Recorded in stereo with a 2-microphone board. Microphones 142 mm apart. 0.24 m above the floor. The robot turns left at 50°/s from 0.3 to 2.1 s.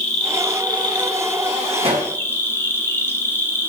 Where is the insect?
110° left, 1.3 m; by 3.7 s 20° left, 1.3 m.